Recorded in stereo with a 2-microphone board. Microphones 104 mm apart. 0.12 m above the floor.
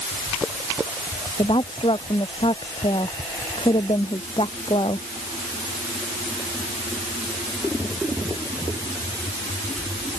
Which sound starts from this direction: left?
A woman speaking, at 1.4 s.